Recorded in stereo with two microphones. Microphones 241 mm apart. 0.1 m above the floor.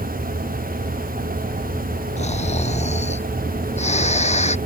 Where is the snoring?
30° left (ahead or behind).